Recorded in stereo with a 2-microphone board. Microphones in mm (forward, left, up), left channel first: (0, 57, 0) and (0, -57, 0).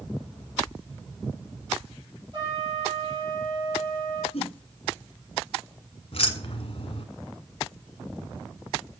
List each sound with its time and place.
2.3 s a trumpet: 40° right (ahead or behind), 4 m
4.3 s a whoosh: 60° left (ahead or behind), 2.5 m
6.1 s keys jangling: 55° left (ahead or behind), 1.2 m